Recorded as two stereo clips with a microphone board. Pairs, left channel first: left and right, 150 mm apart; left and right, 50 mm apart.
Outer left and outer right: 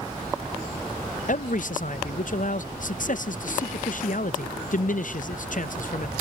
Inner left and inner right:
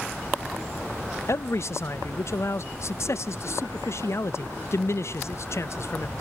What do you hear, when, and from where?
1.3 s a man speaking: 60° left (ahead or behind), 0.5 m